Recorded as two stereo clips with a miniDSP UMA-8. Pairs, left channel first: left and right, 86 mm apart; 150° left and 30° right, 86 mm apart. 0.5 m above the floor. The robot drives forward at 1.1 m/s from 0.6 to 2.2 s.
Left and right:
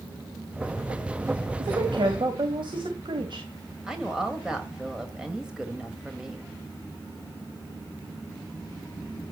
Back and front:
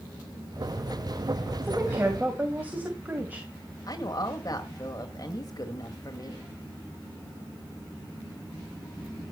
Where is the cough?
I don't hear a cough.